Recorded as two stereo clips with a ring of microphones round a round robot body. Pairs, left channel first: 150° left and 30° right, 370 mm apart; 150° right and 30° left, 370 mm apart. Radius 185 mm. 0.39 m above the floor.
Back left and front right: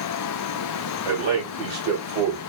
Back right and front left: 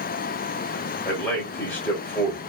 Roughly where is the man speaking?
Ahead right.